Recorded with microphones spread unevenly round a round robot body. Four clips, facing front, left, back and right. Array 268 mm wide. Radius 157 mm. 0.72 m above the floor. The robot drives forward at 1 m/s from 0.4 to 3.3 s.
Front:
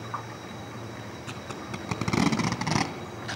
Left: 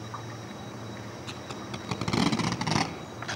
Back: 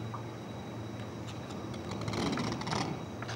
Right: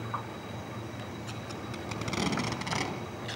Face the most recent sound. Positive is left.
turn(degrees=50)